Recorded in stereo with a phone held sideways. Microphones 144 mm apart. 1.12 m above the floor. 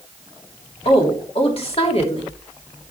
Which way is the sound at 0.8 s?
45° left (ahead or behind).